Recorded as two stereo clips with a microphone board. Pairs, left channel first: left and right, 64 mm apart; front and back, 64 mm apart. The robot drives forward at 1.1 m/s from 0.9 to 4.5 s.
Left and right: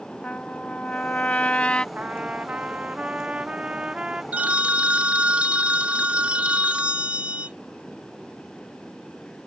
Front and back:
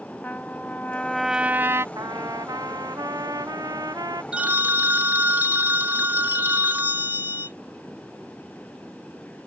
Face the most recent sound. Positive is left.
turn(degrees=-145)